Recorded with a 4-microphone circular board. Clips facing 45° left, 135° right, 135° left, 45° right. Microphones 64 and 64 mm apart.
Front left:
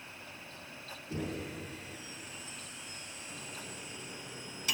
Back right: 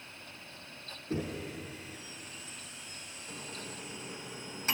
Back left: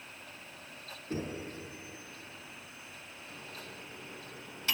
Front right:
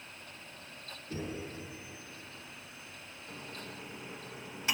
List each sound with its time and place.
1.1 s knocking: 170° right, 4 m
3.3 s a microwave: 110° right, 1.1 m